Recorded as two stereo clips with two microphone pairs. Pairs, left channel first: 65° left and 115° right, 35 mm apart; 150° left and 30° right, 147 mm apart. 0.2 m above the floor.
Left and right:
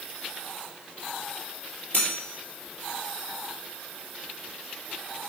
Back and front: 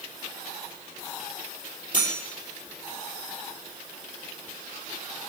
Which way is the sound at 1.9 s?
25° left.